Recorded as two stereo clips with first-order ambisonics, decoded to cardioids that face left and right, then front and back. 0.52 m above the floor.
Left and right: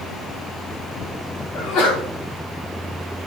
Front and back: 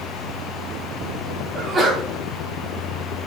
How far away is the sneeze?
About 3.5 m.